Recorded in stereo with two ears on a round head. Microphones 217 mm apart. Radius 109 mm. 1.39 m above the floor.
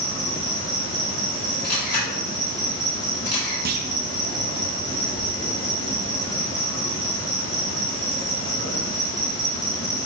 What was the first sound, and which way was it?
An insect, 25° left (ahead or behind).